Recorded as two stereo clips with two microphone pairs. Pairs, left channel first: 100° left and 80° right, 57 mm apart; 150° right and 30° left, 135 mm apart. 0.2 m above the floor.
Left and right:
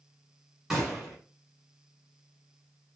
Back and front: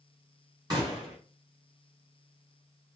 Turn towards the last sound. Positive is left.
turn(degrees=0)